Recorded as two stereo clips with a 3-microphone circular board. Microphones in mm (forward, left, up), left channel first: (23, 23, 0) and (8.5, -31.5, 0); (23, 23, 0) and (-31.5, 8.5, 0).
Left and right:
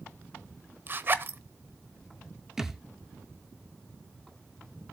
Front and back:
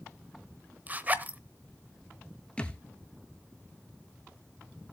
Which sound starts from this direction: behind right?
A zipper, at 0.9 s.